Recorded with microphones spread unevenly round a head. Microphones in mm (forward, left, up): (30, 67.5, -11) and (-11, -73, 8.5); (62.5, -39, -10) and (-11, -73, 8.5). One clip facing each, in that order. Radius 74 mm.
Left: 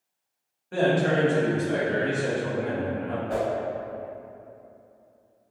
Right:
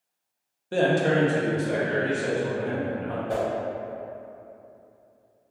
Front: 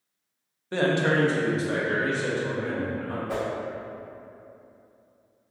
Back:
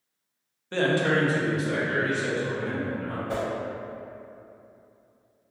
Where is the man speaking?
60° right, 0.5 m; by 3.2 s 20° right, 1.8 m.